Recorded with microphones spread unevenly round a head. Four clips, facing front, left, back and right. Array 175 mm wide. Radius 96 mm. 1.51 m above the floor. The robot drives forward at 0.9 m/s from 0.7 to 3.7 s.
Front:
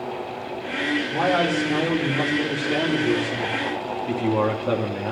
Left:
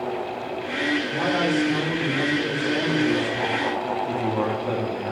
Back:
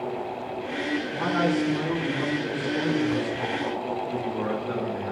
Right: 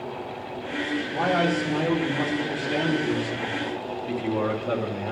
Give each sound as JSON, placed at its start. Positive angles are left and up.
{"t": 1.1, "sound": "a man speaking", "azimuth_deg": 0, "distance_m": 5.5}